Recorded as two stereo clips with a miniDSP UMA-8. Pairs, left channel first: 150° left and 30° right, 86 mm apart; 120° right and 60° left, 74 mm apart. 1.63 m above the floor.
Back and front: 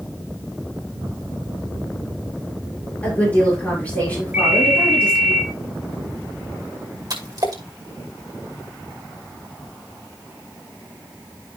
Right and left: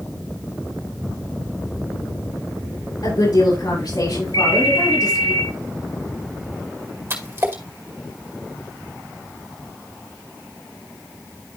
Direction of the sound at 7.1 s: 10° left.